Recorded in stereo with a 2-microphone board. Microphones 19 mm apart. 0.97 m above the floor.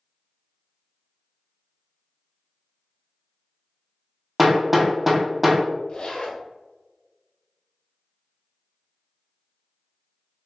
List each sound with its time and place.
4.4 s hammering: 5° right (ahead or behind), 0.8 m
5.9 s a zipper: 70° left (ahead or behind), 1.4 m